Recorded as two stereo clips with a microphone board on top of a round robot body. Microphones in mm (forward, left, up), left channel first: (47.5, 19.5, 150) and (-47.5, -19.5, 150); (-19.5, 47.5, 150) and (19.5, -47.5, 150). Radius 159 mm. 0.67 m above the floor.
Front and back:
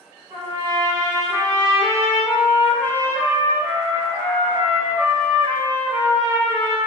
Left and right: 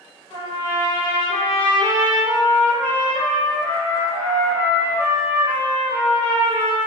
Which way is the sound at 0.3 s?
145° left.